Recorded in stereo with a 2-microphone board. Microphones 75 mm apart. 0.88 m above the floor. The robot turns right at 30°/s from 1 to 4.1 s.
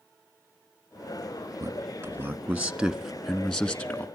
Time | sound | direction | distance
1.6 | a man speaking | 40° right (ahead or behind) | 1.3 m